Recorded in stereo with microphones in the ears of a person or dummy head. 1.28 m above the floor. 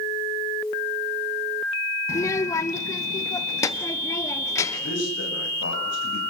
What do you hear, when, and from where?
2.1 s a child speaking: 20° left (ahead or behind), 0.5 m
4.8 s a man speaking: 75° left (ahead or behind), 7.5 m